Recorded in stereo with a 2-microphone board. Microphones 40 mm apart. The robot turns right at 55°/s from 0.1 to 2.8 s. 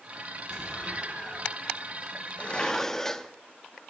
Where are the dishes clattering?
35° left (ahead or behind), 0.6 m; by 3.3 s 15° left (ahead or behind), 0.6 m.